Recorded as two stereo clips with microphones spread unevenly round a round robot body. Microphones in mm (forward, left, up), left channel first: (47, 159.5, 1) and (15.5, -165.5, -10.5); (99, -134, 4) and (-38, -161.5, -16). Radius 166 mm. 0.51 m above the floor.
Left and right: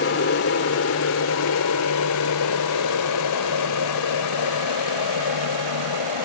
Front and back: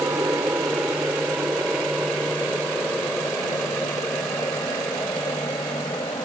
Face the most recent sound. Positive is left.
turn(degrees=90)